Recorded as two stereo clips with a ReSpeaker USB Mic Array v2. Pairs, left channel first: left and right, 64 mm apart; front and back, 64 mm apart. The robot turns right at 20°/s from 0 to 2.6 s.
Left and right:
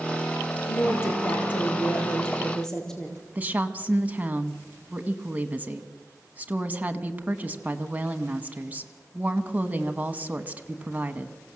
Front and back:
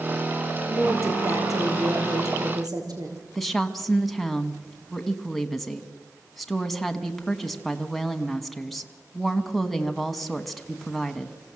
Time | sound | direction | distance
0.7 | a woman speaking | 135° left | 4 m
3.4 | a woman speaking | 90° right | 1.1 m